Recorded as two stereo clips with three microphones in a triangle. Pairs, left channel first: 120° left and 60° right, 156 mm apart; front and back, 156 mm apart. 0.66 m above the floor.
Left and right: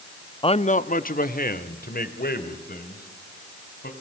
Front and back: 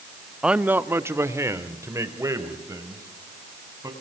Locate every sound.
0.4 s a man speaking: 95° left, 0.6 m; by 3.9 s 110° left, 4 m